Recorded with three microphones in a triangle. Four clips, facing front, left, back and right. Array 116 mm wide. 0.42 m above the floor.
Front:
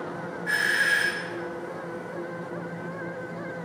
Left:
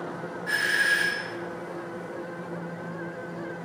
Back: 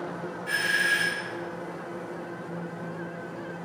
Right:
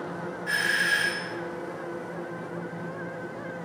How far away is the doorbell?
About 1.4 m.